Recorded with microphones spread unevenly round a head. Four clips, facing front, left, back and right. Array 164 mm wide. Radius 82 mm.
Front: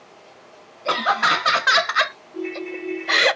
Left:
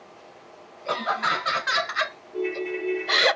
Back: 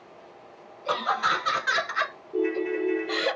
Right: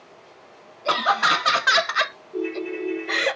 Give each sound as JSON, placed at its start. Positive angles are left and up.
{"t": 0.8, "sound": "laughter", "azimuth_deg": -40, "distance_m": 1.3}
{"t": 2.3, "sound": "a ringtone", "azimuth_deg": -170, "distance_m": 0.7}